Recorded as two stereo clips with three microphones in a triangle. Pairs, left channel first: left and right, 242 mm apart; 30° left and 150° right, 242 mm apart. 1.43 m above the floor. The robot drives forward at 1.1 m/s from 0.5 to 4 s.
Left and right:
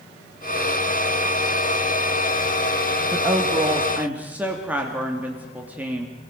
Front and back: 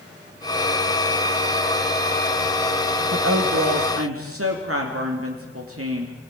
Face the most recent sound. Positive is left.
turn(degrees=-175)